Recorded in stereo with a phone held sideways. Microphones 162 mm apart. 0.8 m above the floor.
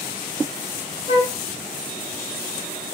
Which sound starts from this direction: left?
A flute, at 1.1 s.